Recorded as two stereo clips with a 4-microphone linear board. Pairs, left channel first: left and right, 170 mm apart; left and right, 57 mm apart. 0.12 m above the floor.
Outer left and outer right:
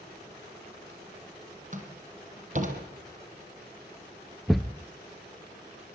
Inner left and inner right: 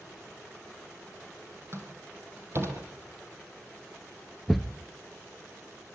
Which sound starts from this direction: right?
A door slam, at 1.7 s.